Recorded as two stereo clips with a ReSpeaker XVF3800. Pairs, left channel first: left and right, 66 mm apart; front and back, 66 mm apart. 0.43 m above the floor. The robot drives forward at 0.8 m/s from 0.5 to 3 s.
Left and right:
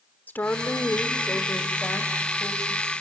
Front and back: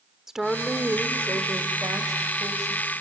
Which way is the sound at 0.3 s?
105° left.